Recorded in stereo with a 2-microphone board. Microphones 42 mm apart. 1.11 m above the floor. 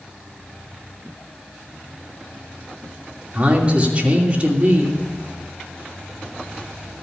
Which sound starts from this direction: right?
A man speaking, at 3.3 s.